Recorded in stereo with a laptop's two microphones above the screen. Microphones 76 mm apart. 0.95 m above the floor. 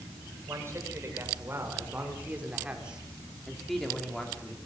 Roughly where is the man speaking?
Right.